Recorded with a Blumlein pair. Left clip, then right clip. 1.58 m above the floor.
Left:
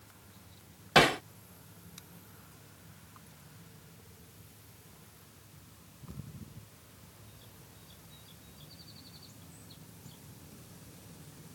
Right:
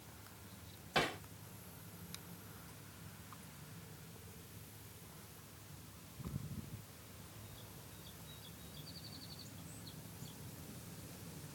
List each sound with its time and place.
0.9 s hammering: 55° left